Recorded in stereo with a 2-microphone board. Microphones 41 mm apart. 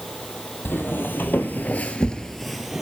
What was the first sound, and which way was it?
Footsteps, 60° left (ahead or behind).